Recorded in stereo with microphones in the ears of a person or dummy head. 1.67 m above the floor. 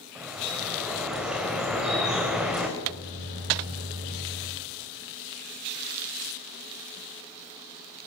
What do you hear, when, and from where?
0.1 s dripping: centre (ahead or behind), 4 m
2.8 s a microwave: 45° right (ahead or behind), 8.5 m